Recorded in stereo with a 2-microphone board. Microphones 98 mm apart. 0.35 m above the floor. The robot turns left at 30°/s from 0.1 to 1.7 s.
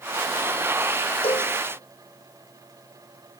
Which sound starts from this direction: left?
A cowbell, at 1.2 s.